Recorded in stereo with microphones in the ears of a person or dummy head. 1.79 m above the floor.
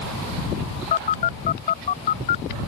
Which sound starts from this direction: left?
A phone buzzing, at 0.9 s.